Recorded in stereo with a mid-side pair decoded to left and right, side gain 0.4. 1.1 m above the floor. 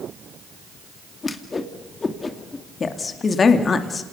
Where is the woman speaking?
45° left, 2.5 m.